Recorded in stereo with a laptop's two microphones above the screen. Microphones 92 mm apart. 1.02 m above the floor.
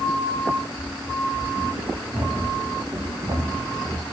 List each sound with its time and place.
0.8 s running footsteps: 25° right (ahead or behind), 5 m; by 4.0 s 50° right (ahead or behind), 2.5 m